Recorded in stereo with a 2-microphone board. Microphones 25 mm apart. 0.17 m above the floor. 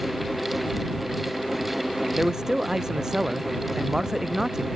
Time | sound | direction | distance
2.2 | a man speaking | 25° right (ahead or behind) | ?